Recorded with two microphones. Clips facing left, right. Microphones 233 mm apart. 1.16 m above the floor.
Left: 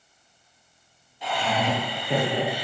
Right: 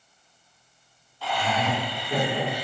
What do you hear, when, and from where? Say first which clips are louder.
1.2 s laughter: left 1 dB; 20° left (ahead or behind), 1.1 m; by 2.6 s 70° left (ahead or behind), 1.2 m